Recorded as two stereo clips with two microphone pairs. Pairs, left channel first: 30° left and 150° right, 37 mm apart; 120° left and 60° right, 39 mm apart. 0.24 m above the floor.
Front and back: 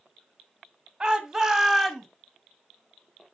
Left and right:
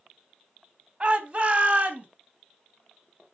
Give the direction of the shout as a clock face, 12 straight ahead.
3 o'clock.